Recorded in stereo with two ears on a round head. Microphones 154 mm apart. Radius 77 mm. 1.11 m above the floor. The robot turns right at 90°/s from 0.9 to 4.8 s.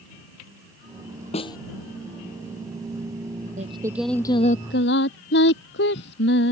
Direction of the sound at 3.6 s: 45° right.